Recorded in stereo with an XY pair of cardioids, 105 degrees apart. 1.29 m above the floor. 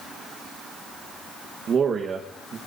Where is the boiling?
No boiling in this recording.